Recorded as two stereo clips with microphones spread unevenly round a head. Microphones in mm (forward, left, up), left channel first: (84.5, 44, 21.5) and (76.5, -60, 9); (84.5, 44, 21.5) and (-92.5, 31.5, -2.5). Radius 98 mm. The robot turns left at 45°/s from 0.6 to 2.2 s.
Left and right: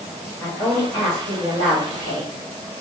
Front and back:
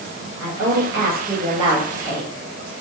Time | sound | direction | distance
0.4 | a woman speaking | 170° left | 1.6 m